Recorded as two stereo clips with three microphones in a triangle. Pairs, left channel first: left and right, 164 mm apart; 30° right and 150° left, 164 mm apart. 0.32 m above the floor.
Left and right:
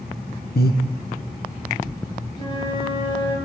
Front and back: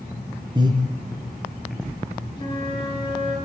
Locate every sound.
0.6 s breathing: 90° left, 2.5 m
2.4 s a flute: 30° left, 6 m